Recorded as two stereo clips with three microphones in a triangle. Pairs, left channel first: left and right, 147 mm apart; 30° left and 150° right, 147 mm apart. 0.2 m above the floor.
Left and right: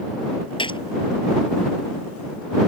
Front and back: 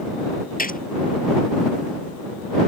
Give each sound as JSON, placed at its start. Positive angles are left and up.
{"t": 0.6, "sound": "a gunshot", "azimuth_deg": 35}